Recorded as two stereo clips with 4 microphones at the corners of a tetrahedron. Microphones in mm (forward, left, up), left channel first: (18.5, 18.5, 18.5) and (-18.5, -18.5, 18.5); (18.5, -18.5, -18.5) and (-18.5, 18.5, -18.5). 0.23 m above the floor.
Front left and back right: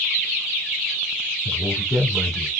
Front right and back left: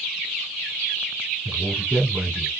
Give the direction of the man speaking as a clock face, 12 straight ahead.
7 o'clock.